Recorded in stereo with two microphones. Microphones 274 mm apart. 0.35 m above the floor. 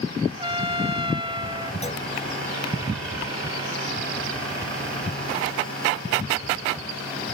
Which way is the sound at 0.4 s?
20° right (ahead or behind).